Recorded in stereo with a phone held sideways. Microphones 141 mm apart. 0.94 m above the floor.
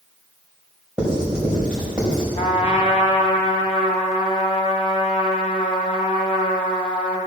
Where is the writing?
5° right (ahead or behind), 4.5 m.